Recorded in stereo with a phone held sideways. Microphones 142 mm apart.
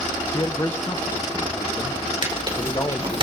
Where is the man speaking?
30° left (ahead or behind), 0.7 m.